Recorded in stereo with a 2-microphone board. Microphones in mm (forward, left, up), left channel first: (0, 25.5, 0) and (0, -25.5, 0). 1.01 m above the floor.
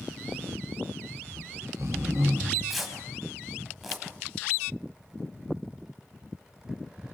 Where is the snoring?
70° right (ahead or behind), 5 m.